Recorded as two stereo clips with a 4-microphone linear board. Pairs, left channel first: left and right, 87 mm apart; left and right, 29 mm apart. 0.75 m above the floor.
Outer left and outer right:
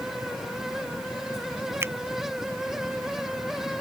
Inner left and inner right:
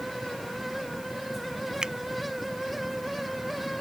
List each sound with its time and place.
1.8 s a finger snap: 25° right (ahead or behind)